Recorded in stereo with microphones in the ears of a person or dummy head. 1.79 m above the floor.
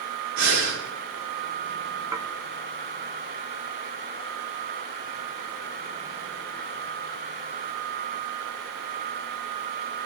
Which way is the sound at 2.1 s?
20° right (ahead or behind).